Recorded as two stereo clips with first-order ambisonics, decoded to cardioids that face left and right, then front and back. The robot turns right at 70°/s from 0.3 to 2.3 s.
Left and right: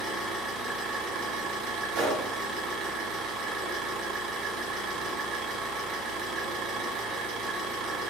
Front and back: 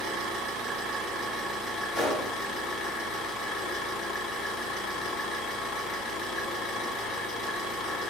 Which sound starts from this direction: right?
A gunshot, at 1.9 s.